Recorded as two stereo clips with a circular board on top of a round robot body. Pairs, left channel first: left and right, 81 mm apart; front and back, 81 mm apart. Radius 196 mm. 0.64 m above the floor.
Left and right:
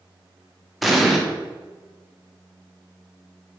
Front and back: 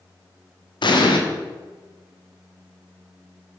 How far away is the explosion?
About 1.8 m.